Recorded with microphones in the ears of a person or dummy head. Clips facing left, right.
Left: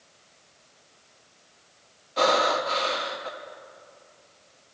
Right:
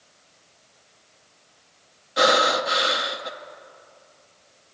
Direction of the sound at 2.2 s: 15° right (ahead or behind).